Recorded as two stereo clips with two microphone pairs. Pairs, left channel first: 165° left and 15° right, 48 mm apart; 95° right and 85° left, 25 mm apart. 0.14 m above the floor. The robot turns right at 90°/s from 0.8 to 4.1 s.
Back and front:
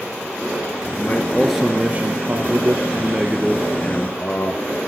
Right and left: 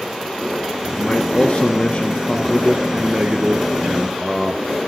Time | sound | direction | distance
0.9 | a man speaking | 155° right | 1.7 m